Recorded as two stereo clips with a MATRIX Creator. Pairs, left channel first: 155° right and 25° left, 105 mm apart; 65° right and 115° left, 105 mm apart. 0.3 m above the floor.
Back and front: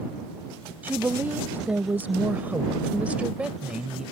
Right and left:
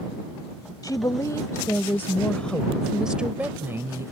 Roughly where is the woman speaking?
Ahead right.